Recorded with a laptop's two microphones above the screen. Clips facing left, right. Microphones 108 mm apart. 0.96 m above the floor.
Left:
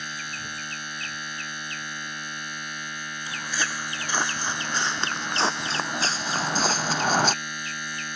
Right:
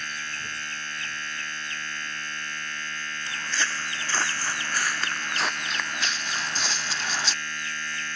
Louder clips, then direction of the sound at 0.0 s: Even; 15° left (ahead or behind).